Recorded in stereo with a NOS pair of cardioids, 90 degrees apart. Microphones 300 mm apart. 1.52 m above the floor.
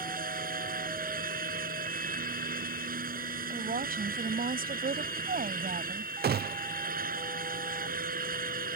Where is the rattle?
I don't hear a rattle.